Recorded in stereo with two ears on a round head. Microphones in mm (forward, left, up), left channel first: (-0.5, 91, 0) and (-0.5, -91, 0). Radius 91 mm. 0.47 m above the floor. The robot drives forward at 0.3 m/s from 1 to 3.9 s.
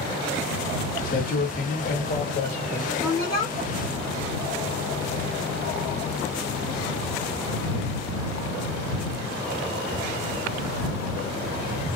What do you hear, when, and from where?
1.0 s a man speaking: 45° left (ahead or behind), 1.7 m; by 2.9 s 40° left (ahead or behind), 1.9 m
3.0 s a woman speaking: 20° left (ahead or behind), 1.7 m; by 3.5 s 15° left (ahead or behind), 1.8 m